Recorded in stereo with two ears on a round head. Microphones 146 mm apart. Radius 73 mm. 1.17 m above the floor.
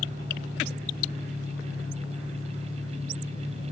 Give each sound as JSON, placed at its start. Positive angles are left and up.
{"t": 0.0, "sound": "an engine running", "side_deg": 65, "distance_m": 3.0}